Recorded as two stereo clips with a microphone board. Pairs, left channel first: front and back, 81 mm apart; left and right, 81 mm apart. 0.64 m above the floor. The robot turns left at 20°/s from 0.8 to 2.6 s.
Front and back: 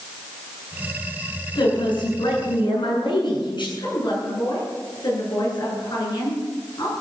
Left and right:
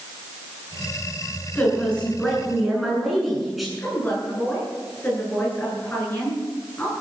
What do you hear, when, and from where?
1.6 s a woman speaking: 20° left, 8.5 m; by 3.7 s straight ahead, 8.5 m
3.8 s a woman speaking: 25° left, 9.5 m